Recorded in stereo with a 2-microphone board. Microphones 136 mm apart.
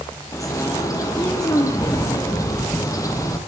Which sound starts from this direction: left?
A bird, at 0.3 s.